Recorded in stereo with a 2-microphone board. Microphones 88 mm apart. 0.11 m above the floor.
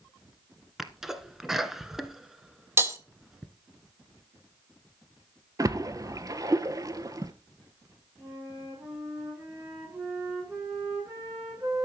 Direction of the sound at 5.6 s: 40° right (ahead or behind).